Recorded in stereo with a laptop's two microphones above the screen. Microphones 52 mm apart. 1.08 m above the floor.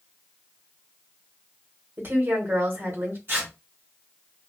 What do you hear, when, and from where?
2.0 s a woman speaking: 45° right (ahead or behind), 1.5 m
3.3 s tearing paper: 45° right (ahead or behind), 0.9 m